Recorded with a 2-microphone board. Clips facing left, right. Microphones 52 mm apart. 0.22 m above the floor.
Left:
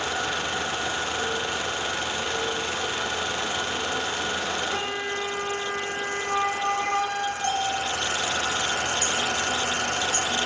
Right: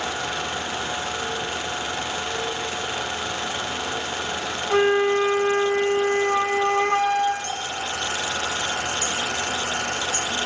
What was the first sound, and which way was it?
A flute, 40° right (ahead or behind).